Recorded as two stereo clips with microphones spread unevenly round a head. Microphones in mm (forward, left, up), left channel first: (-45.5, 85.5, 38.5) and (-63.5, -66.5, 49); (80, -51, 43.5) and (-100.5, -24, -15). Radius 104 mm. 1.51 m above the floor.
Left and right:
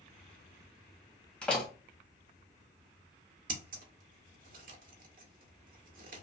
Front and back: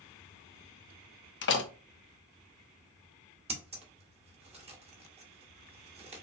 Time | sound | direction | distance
1.4 | a door slam | 5° right | 0.9 m
3.5 | scissors | 130° right | 1.7 m